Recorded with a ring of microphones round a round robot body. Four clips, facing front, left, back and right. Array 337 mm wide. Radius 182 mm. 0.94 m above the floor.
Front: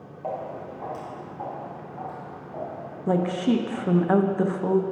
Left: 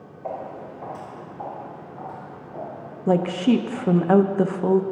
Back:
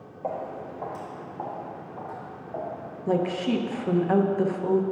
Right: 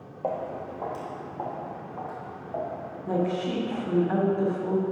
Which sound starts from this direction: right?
Footsteps, at 0.2 s.